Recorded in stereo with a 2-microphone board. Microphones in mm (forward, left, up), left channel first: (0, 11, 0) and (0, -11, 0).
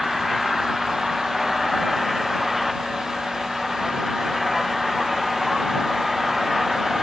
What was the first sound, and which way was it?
An engine running, centre (ahead or behind).